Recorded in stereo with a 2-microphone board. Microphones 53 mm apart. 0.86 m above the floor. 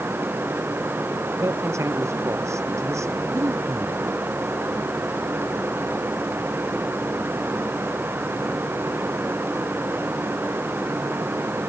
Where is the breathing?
85° right.